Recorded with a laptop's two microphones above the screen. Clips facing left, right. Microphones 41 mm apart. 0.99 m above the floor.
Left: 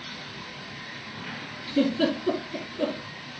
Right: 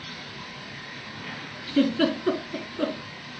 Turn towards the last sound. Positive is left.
turn(degrees=-65)  # may be behind; listen again after turning